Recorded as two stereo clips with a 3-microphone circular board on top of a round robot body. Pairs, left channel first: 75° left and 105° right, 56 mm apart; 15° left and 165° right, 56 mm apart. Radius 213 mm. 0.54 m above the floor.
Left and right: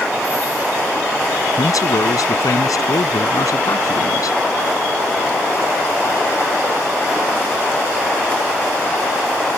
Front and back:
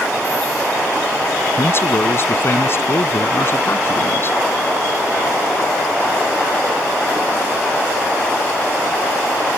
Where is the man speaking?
65° left.